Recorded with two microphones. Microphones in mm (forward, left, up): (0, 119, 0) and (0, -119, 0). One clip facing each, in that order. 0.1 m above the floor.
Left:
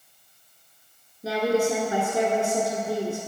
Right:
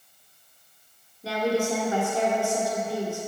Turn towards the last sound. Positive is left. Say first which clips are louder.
# left 3 dB
turn(degrees=20)  # may be behind; listen again after turning